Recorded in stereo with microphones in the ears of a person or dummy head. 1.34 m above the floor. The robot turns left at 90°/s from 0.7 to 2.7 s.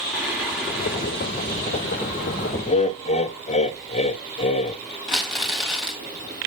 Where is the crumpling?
Centre (ahead or behind), 1.5 m.